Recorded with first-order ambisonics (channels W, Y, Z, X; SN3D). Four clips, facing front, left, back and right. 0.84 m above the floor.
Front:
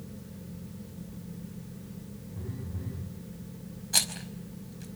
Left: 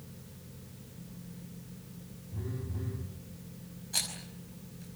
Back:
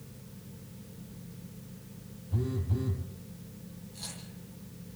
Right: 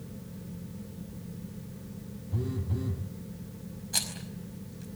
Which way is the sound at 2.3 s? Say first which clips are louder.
Right 6 dB, back 9 dB; 140° right.